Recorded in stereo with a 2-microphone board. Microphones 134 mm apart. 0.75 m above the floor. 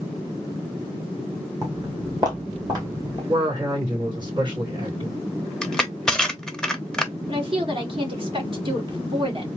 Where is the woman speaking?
40° right (ahead or behind), 1.7 m.